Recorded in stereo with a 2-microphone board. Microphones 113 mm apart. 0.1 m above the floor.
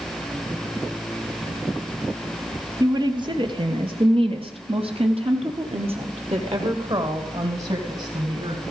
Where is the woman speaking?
35° right (ahead or behind), 1.9 m; by 8.6 s 50° right (ahead or behind), 3.5 m.